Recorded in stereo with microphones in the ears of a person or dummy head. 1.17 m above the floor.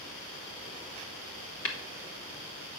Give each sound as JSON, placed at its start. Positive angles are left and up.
{"t": 1.6, "sound": "tapping", "side_deg": 65, "distance_m": 1.3}